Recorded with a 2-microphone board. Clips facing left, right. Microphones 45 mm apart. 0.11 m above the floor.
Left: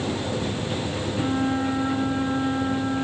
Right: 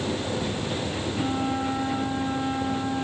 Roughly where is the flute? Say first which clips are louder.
Left 4 dB; left.